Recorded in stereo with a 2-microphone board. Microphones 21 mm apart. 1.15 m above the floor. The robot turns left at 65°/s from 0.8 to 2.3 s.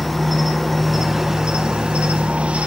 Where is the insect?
Straight ahead, 1.1 m; by 2.7 s 100° right, 1.1 m.